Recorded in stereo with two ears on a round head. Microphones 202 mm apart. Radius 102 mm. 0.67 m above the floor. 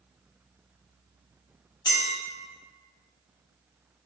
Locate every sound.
1.9 s a clink: 20° left (ahead or behind), 0.8 m